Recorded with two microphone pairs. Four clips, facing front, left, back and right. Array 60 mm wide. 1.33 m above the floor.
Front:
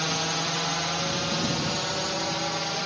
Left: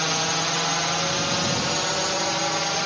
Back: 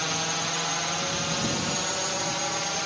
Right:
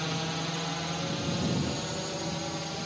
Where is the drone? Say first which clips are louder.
Left 8 dB, front 1 dB; 90° left; by 2.9 s 95° left.